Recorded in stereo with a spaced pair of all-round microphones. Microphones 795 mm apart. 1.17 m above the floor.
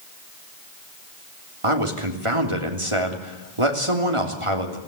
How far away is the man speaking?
About 3 m.